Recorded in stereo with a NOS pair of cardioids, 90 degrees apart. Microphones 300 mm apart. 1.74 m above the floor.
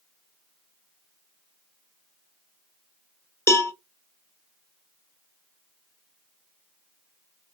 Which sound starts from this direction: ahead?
A cowbell, at 3.5 s.